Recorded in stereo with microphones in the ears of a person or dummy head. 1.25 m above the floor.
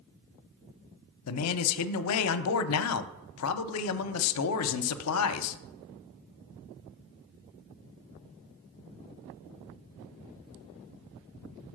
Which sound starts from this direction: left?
A man speaking, at 1.3 s.